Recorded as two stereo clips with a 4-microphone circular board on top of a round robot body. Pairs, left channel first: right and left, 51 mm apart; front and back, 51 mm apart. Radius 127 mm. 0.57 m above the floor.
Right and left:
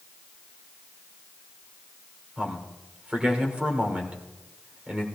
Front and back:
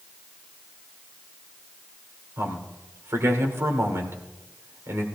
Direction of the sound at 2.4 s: 155° left.